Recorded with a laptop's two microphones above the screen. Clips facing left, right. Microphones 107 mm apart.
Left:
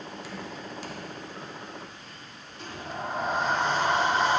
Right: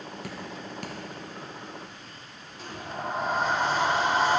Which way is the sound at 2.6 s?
Centre (ahead or behind).